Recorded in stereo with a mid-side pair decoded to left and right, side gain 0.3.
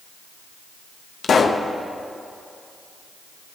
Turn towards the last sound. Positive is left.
turn(degrees=60)